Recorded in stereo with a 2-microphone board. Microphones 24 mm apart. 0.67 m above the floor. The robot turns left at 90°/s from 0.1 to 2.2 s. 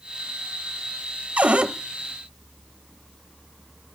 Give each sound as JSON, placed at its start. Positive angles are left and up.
{"t": 1.4, "sound": "a cupboard door", "azimuth_deg": -100, "distance_m": 0.8}